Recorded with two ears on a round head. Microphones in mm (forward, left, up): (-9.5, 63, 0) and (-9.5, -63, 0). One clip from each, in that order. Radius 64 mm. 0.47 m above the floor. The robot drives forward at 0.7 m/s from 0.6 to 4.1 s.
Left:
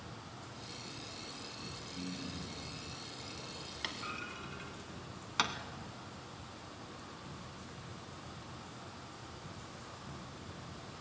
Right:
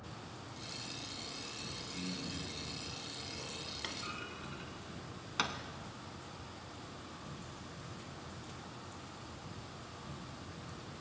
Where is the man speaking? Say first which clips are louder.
Right 1 dB; 10° right (ahead or behind), 8.5 m.